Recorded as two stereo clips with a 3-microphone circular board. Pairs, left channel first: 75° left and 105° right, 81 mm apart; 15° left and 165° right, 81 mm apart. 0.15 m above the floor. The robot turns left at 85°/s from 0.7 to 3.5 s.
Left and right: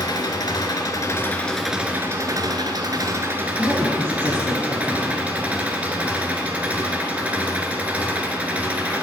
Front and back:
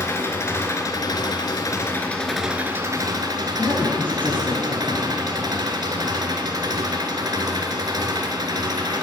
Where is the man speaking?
55° right, 2.5 m.